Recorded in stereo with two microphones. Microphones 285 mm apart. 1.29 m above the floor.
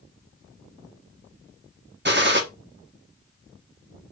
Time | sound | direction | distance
2.0 | a gunshot | 40° right (ahead or behind) | 1.5 m